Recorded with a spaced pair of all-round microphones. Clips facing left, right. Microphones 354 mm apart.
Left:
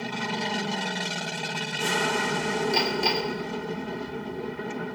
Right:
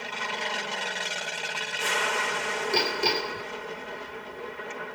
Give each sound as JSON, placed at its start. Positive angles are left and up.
{"t": 0.0, "sound": "an aircraft", "side_deg": 55}
{"t": 2.7, "sound": "hammering", "side_deg": -30}